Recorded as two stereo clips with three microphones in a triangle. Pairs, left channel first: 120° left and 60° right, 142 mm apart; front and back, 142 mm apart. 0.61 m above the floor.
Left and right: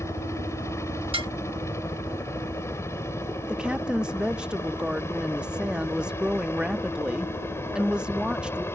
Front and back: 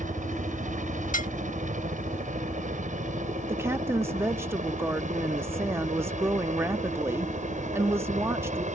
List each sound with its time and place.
0.0 s a helicopter: 170° right
1.1 s dishes clattering: 10° right
3.5 s a woman speaking: 135° right